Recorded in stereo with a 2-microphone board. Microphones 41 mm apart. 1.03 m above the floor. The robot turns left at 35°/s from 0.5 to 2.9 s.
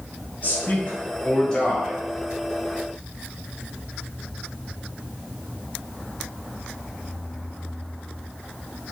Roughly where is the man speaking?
Left.